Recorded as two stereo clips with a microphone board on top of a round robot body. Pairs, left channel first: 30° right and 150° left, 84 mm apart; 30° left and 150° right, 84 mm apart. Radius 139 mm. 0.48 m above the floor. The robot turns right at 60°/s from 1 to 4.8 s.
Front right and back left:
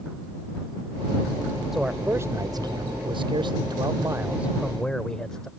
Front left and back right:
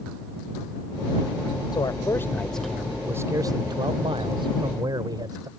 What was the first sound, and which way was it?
A man speaking, 60° left.